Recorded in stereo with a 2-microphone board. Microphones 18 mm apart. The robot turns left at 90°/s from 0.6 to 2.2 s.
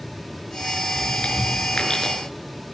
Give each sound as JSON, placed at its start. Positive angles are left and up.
{"t": 0.9, "sound": "chewing", "side_deg": 55, "distance_m": 6.0}